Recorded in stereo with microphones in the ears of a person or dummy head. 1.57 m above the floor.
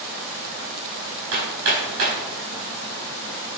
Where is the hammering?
75° right (ahead or behind), 4.5 m.